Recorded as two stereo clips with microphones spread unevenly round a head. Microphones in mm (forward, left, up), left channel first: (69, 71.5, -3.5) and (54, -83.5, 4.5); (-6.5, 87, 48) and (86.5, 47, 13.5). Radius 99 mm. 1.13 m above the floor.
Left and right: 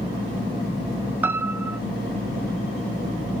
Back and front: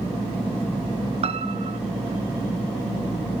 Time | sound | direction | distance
1.2 | a piano | 15° right | 0.6 m